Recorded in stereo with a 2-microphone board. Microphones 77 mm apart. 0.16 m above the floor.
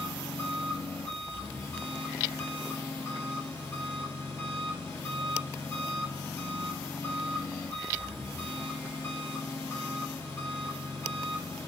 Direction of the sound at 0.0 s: 30° left (ahead or behind).